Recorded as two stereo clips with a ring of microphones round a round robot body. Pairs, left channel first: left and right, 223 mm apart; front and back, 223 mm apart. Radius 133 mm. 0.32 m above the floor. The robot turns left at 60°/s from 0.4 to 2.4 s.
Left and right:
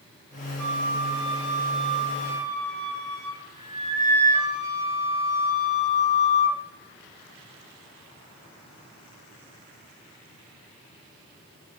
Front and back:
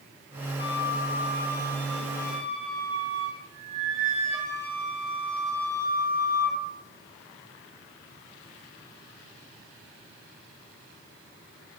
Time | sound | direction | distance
0.6 | a flute | 5° right | 0.9 m